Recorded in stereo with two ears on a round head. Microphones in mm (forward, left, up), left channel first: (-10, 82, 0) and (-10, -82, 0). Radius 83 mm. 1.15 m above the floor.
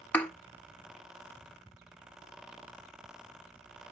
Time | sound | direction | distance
0.1 | a thud | 10° left (ahead or behind) | 0.9 m